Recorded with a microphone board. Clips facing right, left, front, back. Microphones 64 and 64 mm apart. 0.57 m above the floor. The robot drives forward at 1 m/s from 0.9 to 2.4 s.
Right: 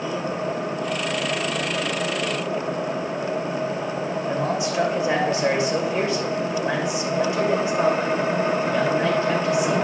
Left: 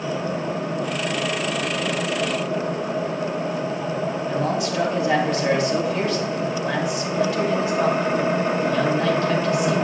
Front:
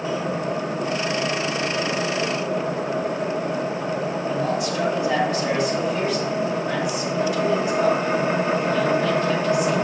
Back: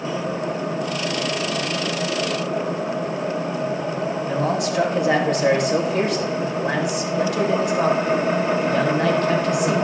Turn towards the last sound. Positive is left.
turn(degrees=-155)